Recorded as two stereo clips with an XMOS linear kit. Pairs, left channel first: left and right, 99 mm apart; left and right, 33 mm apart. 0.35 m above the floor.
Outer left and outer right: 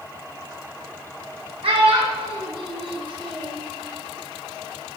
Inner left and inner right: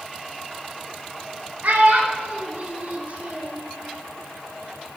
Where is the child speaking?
75° right (ahead or behind), 2.5 m; by 3.6 s 55° right (ahead or behind), 2.5 m.